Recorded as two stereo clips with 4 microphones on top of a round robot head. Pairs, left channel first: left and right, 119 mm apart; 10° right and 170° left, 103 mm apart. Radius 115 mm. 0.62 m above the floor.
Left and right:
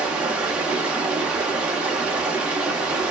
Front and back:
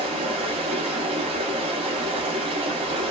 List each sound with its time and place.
0.0 s running water: 170° right, 0.8 m